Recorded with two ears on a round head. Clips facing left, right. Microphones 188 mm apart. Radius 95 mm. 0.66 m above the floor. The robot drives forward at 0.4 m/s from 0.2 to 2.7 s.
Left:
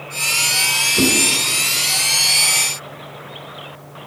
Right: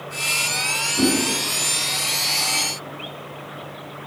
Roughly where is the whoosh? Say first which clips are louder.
Left 1 dB; left.